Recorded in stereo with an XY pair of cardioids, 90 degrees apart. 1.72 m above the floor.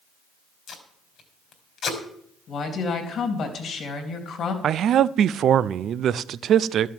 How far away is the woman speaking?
About 3.5 m.